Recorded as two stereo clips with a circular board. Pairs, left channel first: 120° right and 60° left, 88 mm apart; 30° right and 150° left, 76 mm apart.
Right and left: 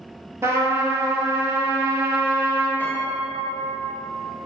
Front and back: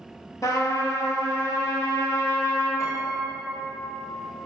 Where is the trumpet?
5° left, 0.8 m.